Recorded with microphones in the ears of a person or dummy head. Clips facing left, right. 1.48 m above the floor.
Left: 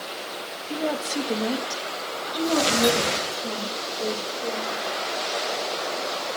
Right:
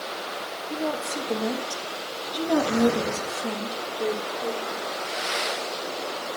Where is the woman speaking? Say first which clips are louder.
Left 2 dB; 30° left (ahead or behind), 1.6 m; by 4.8 s 30° right (ahead or behind), 3 m.